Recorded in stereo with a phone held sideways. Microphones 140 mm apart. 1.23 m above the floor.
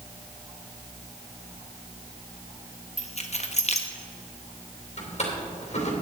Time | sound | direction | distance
3.0 | keys jangling | 50° left (ahead or behind) | 0.9 m
5.0 | a drawer | 55° left (ahead or behind) | 3 m